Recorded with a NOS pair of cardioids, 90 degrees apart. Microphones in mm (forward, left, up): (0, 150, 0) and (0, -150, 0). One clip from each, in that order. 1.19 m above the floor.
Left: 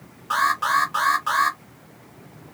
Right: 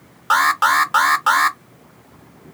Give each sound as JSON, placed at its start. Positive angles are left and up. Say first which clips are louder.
{"t": 0.3, "sound": "an alarm", "louder": "right 5 dB", "azimuth_deg": -60, "distance_m": 0.8}